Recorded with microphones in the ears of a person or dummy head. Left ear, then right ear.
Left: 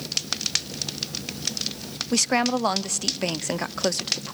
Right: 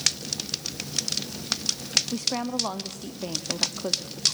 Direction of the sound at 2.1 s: 65° left (ahead or behind).